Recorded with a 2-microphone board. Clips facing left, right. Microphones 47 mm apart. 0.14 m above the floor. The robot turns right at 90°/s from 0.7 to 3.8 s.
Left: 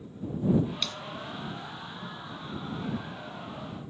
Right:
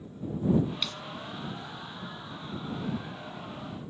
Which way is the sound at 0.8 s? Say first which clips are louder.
Even; 5° right (ahead or behind).